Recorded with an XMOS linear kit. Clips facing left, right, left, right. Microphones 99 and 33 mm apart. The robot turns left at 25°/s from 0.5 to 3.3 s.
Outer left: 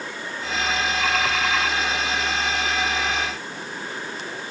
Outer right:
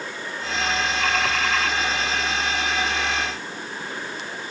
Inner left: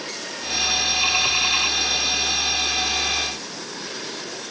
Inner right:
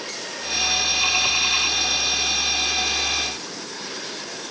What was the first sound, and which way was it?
Only background noise.